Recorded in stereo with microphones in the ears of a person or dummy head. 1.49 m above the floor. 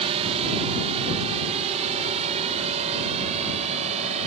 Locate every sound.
0.0 s a drone: 30° right (ahead or behind); by 4.3 s 35° right (ahead or behind)